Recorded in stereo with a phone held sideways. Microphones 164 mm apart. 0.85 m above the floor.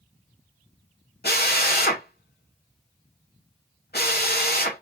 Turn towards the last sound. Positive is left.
turn(degrees=80)